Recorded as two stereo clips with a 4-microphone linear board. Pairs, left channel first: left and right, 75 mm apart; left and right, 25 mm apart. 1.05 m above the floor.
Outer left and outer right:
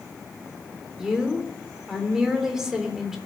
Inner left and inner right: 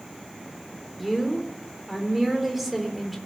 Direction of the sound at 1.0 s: 10° right (ahead or behind).